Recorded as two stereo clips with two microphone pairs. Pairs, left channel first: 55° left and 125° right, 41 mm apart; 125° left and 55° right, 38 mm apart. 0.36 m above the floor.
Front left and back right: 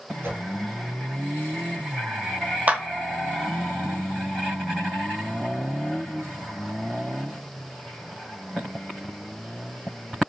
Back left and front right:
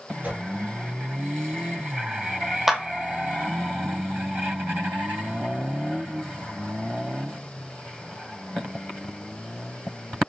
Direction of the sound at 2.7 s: 130° right.